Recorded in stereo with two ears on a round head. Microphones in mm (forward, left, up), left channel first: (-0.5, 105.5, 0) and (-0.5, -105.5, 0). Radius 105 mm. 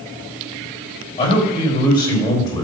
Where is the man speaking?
25° left (ahead or behind), 4 m; by 2.6 s 15° left (ahead or behind), 3.5 m.